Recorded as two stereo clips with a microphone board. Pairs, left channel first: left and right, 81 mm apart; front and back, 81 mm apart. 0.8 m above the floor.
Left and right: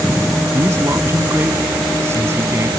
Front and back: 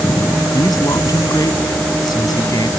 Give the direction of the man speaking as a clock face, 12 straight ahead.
1 o'clock.